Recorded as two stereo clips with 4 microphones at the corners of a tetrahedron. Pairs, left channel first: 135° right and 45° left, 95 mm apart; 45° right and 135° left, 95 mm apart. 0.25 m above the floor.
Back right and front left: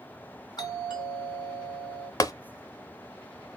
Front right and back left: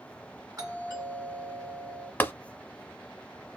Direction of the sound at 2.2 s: 105° right.